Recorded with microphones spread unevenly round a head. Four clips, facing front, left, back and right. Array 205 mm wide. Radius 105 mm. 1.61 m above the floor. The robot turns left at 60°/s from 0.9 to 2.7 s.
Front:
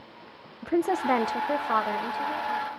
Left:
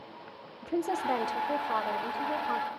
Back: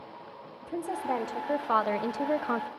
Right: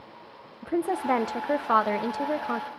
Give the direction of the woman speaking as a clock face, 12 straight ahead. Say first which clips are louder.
Right 4 dB, front 8 dB; 1 o'clock.